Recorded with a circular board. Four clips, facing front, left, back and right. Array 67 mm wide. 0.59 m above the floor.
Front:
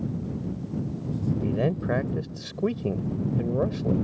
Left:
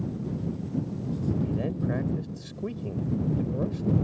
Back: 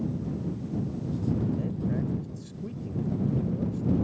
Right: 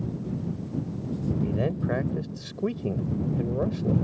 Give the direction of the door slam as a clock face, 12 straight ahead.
No door slam in this recording.